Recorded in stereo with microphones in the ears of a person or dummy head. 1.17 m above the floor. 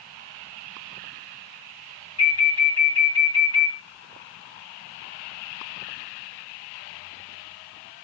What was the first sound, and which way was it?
An alarm, 25° left (ahead or behind).